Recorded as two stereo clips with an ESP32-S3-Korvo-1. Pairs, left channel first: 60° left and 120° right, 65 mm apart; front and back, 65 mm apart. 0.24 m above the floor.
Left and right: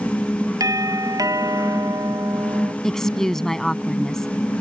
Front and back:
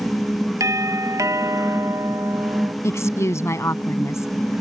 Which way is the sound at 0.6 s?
145° right.